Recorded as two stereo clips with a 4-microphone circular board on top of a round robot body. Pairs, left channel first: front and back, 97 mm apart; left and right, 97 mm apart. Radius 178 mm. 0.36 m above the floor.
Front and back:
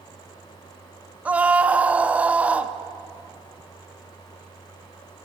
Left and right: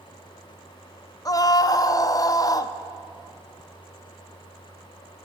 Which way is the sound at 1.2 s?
110° left.